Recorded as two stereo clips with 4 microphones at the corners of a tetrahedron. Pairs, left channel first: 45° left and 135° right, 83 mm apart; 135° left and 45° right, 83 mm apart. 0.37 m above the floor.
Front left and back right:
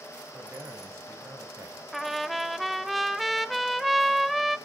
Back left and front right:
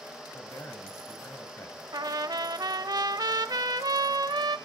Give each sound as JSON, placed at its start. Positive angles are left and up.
{"t": 0.3, "sound": "a man speaking", "azimuth_deg": 175, "distance_m": 2.0}
{"t": 1.9, "sound": "a trumpet", "azimuth_deg": -45, "distance_m": 0.6}